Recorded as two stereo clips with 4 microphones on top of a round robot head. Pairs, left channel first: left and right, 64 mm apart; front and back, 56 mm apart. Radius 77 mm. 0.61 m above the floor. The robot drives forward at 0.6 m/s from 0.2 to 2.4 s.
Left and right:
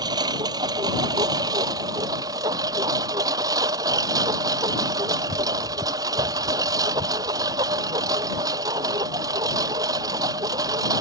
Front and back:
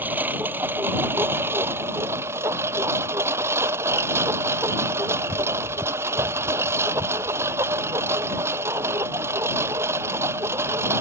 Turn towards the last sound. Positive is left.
turn(degrees=-125)